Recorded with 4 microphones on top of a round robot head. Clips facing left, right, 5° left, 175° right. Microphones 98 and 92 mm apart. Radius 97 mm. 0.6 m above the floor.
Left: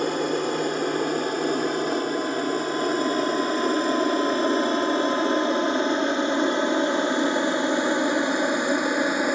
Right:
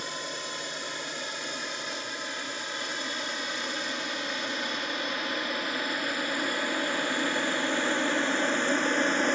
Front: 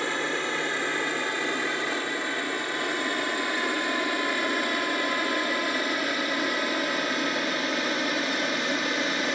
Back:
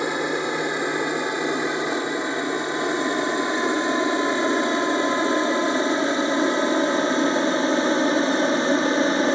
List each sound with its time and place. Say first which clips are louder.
0.0 s an aircraft: left 14 dB, back 5 dB; 115° left; by 9.4 s 165° left